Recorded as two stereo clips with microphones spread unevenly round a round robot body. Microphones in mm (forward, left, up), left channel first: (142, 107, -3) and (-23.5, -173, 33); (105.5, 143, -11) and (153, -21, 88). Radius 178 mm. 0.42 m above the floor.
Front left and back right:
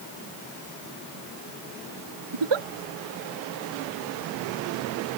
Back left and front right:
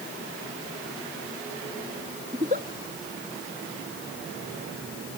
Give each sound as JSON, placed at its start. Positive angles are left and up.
{"t": 2.3, "sound": "a giggle", "azimuth_deg": -140}